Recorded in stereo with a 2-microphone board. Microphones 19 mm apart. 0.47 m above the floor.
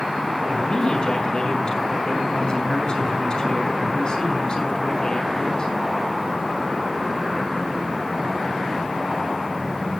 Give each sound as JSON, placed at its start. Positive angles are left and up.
{"t": 0.5, "sound": "a man speaking", "side_deg": 45, "distance_m": 5.0}